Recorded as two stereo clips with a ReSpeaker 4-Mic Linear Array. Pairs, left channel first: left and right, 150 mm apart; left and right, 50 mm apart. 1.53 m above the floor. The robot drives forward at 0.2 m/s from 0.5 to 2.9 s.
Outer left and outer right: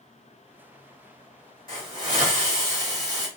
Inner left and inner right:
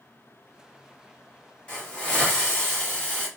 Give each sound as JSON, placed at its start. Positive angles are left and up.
{"t": 1.7, "sound": "a hiss", "side_deg": 20, "distance_m": 1.6}